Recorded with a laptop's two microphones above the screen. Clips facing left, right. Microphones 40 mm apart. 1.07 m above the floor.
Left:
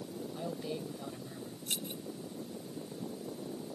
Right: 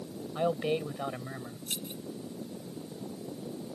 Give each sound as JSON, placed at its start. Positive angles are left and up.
{"t": 0.3, "sound": "a man speaking", "side_deg": -55}
{"t": 1.7, "sound": "keys jangling", "side_deg": 5}